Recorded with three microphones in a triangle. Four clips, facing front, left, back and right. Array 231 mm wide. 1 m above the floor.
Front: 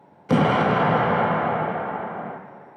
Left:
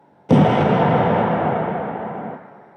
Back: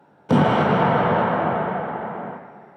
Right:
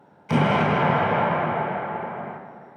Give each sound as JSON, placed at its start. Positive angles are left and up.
{"t": 0.3, "sound": "an explosion", "azimuth_deg": 85, "distance_m": 0.7}